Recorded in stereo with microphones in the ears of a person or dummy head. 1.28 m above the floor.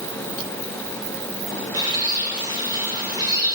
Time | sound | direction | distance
1.7 | a bird | 15° right (ahead or behind) | 1.8 m